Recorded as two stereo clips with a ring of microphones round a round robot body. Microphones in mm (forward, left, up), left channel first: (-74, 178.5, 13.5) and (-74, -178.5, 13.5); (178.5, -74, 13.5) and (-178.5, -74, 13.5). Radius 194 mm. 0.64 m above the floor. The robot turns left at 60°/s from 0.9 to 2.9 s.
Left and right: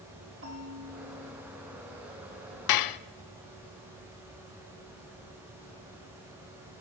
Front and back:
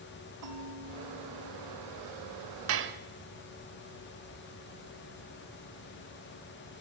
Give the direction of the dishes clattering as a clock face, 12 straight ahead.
8 o'clock.